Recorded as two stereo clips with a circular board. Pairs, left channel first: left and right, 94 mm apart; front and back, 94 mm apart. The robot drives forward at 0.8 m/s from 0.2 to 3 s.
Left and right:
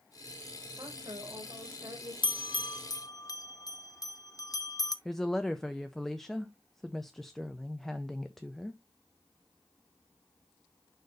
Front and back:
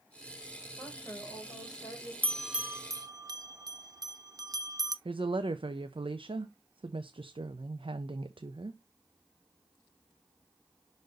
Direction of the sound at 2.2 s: 70° left.